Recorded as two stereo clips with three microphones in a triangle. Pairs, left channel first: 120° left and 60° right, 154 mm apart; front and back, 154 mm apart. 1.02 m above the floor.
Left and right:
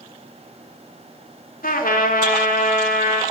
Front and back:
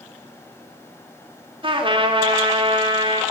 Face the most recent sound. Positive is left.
turn(degrees=130)